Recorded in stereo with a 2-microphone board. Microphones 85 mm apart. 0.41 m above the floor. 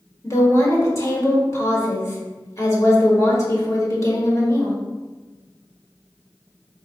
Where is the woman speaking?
35° left (ahead or behind), 1.2 m.